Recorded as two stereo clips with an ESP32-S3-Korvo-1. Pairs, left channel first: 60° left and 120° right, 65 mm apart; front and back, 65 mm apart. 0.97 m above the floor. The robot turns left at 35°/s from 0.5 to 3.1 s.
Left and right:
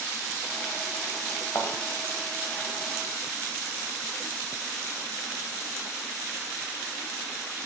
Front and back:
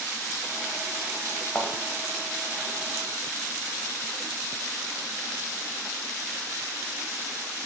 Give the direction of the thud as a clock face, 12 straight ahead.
10 o'clock.